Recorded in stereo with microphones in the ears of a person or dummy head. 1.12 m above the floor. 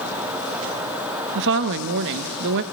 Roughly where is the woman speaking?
Right.